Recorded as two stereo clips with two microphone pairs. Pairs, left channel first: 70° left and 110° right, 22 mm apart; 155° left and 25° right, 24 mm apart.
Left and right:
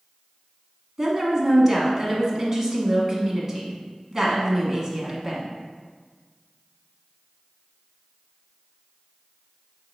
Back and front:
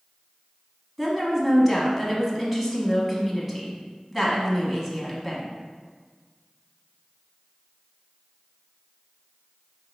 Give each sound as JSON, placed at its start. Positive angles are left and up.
{"t": 1.0, "sound": "a woman speaking", "azimuth_deg": -105, "distance_m": 1.1}